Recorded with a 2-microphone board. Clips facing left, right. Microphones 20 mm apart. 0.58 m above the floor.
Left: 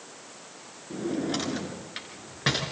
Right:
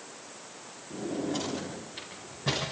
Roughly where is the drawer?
Left.